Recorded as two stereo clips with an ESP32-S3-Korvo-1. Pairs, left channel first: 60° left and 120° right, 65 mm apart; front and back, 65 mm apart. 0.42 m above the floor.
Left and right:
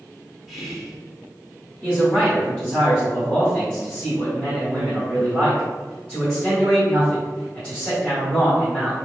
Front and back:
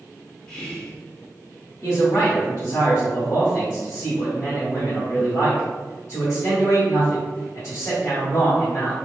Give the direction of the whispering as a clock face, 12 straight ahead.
1 o'clock.